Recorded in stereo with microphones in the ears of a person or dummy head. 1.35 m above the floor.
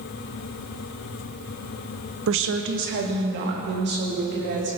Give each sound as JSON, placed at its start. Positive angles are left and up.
{"t": 2.3, "sound": "a woman speaking", "side_deg": -65, "distance_m": 0.7}